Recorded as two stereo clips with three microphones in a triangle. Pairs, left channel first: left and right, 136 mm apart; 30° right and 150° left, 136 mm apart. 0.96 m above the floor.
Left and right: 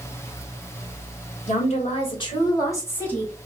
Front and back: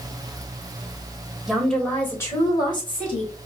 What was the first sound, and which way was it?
A woman speaking, 65° left.